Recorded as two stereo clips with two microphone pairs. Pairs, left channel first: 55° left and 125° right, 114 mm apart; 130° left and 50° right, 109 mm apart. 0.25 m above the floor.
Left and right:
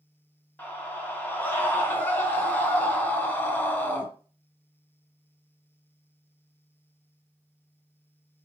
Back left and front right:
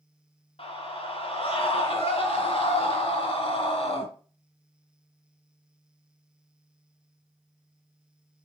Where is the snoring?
I don't hear snoring.